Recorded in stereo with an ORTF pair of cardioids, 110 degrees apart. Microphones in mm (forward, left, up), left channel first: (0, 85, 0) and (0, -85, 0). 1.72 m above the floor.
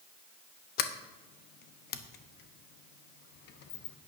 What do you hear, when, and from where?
0.8 s a sliding door: 65° left, 1.1 m